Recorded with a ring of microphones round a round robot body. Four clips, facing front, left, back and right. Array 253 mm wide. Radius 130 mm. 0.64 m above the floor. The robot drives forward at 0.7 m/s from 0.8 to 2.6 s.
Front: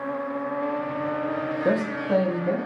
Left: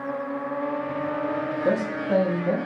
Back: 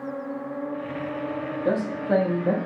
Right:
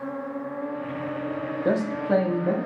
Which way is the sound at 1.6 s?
35° right.